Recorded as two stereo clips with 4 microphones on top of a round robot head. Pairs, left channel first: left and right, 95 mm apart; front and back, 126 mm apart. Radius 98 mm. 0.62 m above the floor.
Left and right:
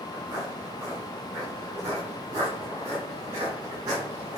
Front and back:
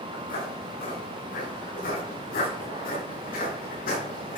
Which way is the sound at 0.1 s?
10° right.